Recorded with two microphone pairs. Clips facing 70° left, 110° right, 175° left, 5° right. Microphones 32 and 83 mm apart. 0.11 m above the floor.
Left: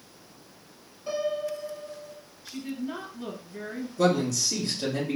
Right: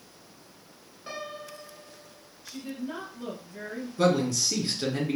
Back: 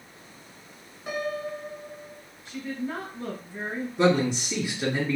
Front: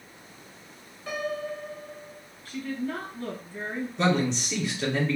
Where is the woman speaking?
130° left, 1.2 m.